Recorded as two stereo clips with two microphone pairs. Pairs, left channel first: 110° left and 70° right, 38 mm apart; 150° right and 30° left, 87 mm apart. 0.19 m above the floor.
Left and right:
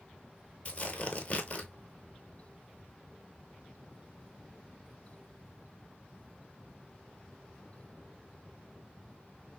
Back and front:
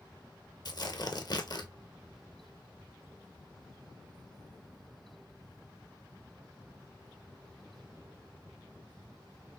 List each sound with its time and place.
0.7 s tearing paper: 170° left, 0.6 m